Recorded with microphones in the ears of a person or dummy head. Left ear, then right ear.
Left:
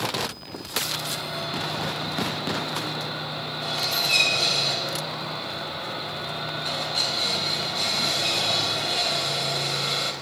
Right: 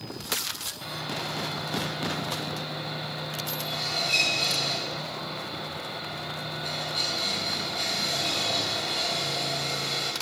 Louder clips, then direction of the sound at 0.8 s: Left 2 dB; 5° left (ahead or behind).